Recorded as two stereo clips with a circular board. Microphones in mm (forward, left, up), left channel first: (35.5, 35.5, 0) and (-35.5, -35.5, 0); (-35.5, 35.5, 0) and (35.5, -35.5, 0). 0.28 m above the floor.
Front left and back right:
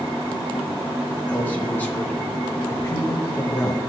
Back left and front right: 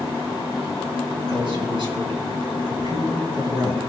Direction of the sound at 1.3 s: 25° right.